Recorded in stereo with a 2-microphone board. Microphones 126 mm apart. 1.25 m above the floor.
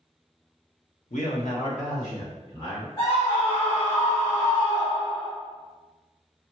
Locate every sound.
1.1 s a man speaking: 80° left, 0.9 m; by 2.9 s 75° left (ahead or behind), 2.5 m
3.0 s a scream: 45° left (ahead or behind), 1.4 m